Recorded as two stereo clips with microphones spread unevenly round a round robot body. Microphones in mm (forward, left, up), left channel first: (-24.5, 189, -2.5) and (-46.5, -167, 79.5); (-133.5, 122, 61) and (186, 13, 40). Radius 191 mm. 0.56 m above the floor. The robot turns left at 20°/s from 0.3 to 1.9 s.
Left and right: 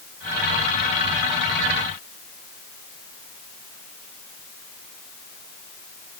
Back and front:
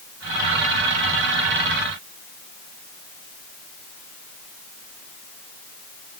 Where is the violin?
I don't hear a violin.